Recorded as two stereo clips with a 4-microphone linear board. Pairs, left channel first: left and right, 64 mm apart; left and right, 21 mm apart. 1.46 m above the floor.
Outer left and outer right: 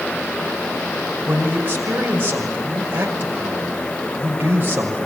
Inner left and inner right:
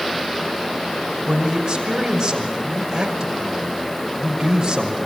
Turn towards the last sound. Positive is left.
turn(degrees=-30)  # may be behind; listen again after turning